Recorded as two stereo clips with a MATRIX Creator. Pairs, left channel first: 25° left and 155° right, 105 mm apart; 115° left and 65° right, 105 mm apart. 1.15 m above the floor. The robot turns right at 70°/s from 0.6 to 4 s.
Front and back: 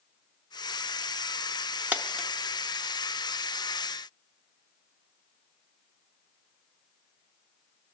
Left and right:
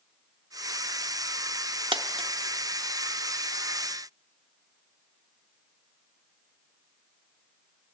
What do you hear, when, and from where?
1.9 s a dropped coin: 90° right, 0.7 m; by 2.3 s 60° right, 0.7 m